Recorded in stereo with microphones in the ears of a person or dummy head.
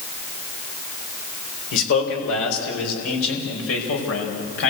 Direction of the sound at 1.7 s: 85° left.